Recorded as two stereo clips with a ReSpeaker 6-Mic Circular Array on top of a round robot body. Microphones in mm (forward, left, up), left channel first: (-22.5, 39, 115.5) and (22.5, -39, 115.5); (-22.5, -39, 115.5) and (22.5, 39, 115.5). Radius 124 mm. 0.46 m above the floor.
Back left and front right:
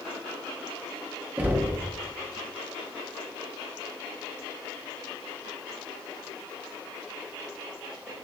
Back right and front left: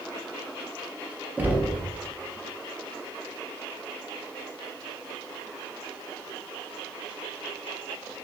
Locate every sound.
1.4 s knocking: straight ahead, 0.7 m